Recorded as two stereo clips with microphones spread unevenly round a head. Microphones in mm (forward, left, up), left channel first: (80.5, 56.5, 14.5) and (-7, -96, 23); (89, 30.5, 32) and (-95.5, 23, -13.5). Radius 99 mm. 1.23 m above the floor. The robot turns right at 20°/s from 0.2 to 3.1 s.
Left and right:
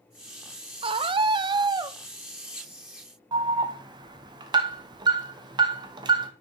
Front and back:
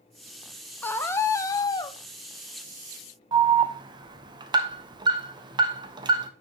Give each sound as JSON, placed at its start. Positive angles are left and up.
{"t": 0.8, "sound": "a scream", "azimuth_deg": -95, "distance_m": 0.7}
{"t": 3.3, "sound": "an alarm", "azimuth_deg": -175, "distance_m": 1.0}